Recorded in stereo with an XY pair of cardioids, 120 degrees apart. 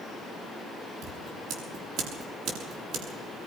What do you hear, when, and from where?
1.0 s scissors: 70° right, 6.5 m